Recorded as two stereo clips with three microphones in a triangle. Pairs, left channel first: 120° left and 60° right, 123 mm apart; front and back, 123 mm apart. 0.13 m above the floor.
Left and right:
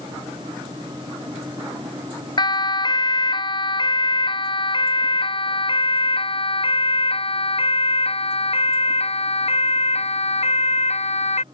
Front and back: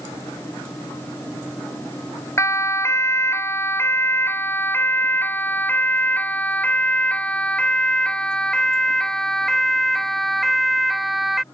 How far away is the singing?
I don't hear singing.